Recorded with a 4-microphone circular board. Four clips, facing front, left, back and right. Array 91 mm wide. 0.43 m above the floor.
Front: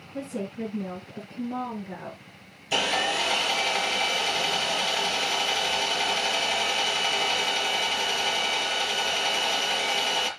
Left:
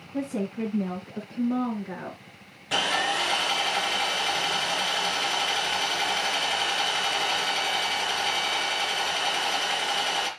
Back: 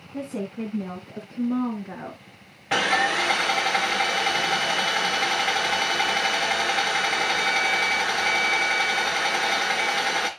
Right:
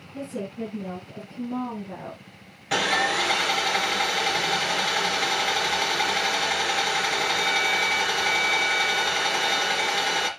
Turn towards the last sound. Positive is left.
turn(degrees=-165)